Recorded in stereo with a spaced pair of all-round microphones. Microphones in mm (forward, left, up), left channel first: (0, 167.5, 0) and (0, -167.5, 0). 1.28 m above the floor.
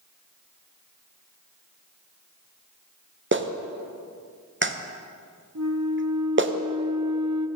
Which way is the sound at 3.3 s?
35° right (ahead or behind).